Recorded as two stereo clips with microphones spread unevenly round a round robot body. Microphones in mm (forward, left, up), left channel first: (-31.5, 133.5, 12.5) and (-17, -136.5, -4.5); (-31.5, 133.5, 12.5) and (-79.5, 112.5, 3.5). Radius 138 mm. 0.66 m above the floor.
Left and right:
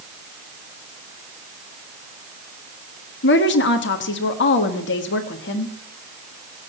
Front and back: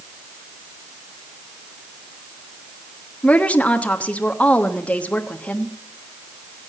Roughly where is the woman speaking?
Left.